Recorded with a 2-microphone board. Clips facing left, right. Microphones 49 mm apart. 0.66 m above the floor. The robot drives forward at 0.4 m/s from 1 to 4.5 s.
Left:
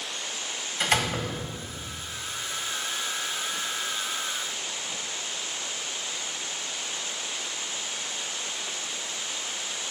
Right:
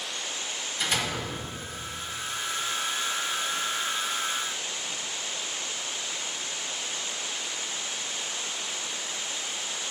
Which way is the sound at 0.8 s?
50° left (ahead or behind).